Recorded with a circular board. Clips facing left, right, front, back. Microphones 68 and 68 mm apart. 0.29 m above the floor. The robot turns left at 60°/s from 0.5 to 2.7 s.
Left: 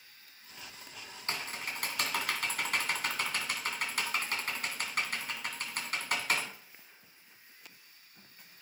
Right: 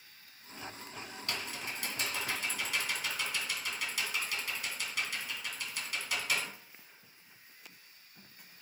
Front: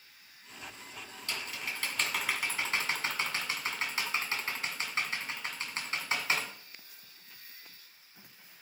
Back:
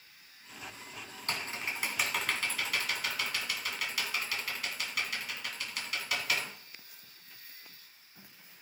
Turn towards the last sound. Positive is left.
turn(degrees=55)